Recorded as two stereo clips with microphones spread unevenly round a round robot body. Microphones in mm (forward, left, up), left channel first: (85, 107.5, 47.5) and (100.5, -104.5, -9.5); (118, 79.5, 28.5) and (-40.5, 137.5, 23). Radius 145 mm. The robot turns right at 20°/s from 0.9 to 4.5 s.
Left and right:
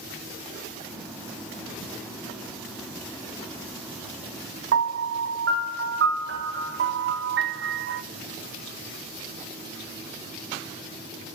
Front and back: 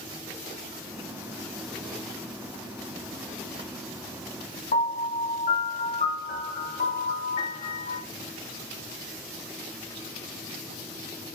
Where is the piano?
80° right, 1.6 m.